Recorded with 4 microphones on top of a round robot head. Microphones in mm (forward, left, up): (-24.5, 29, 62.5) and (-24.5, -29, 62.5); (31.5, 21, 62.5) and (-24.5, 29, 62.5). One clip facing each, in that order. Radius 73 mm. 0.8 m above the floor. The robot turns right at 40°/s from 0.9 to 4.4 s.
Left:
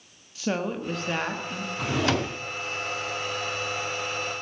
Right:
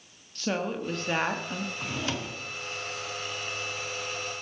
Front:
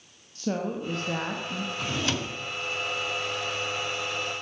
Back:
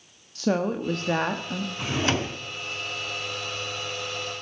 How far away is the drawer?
About 0.7 m.